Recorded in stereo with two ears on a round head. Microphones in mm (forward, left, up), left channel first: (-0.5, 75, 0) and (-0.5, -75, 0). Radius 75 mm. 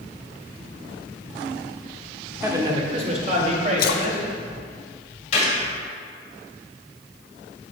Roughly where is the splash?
Left.